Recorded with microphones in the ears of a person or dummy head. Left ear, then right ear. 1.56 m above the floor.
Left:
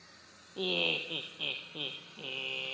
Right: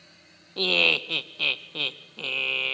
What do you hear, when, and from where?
0.6 s laughter: 65° right (ahead or behind), 1.3 m